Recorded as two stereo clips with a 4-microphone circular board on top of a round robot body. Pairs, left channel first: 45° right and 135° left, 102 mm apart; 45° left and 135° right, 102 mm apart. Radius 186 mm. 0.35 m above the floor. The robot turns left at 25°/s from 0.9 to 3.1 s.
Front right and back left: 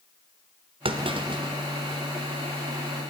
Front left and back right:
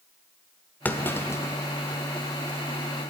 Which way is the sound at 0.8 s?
115° left.